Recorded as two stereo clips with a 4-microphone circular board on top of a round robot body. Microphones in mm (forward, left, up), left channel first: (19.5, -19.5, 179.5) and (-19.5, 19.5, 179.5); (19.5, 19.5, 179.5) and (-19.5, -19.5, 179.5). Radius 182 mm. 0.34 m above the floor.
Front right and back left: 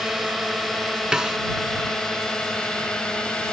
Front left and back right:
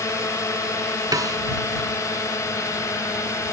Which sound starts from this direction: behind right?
A snare drum, at 1.1 s.